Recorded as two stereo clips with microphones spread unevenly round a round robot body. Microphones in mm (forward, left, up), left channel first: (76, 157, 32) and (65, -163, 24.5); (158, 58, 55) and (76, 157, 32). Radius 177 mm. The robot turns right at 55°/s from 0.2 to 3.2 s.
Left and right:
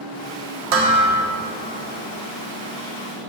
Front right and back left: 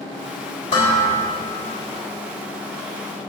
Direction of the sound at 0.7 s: 105° right.